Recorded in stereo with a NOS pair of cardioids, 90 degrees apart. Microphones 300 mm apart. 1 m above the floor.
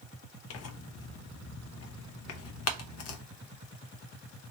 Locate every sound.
0.5 s tearing paper: 55° left, 0.9 m